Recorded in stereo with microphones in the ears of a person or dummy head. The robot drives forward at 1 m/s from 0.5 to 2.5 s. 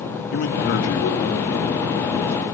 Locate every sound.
0.3 s a man speaking: 55° left (ahead or behind), 2.5 m; by 2.4 s 35° left (ahead or behind), 4 m